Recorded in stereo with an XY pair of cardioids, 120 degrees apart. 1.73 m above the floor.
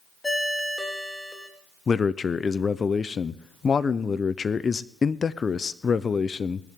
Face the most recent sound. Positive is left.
turn(degrees=30)